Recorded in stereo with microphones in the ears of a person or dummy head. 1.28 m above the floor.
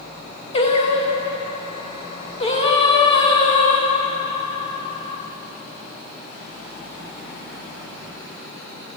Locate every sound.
0.5 s singing: 40° left (ahead or behind), 1.1 m